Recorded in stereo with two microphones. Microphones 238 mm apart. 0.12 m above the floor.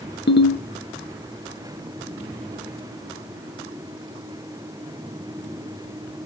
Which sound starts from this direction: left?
A ringtone, at 0.3 s.